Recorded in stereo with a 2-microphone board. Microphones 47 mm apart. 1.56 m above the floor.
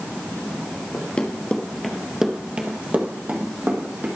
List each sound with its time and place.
0.9 s running footsteps: 35° left (ahead or behind), 1.9 m; by 4.1 s 50° right (ahead or behind), 3 m